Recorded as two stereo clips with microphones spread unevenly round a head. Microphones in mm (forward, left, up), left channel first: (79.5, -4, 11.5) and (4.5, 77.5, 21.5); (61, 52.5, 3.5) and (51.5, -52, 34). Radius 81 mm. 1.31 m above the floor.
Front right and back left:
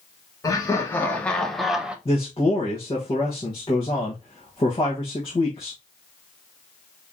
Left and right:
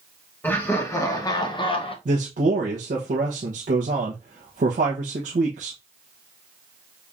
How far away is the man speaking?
About 1.1 m.